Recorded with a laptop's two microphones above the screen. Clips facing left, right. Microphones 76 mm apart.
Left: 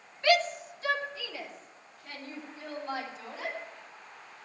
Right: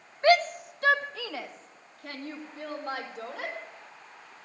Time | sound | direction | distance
0.2 | a shout | 35° right (ahead or behind) | 1.2 m